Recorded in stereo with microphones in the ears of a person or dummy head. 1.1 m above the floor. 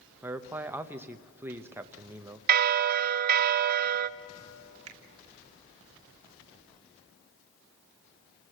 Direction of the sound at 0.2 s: 10° right (ahead or behind).